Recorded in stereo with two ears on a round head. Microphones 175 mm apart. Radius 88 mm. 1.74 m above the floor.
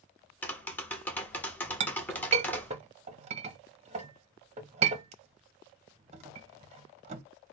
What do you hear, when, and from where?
0.4 s tapping: 10° left (ahead or behind), 0.8 m
1.8 s a clink: 35° right (ahead or behind), 0.7 m